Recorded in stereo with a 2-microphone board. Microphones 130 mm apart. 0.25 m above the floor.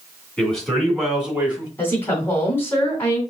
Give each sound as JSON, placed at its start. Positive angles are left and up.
{"t": 0.4, "sound": "a man speaking", "side_deg": 5, "distance_m": 2.5}
{"t": 1.8, "sound": "a woman speaking", "side_deg": 15, "distance_m": 2.5}